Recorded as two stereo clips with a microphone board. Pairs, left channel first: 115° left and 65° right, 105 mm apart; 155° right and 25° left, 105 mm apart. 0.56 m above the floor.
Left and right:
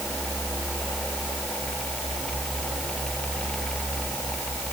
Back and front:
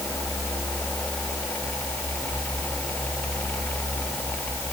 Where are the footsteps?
No footsteps in this recording.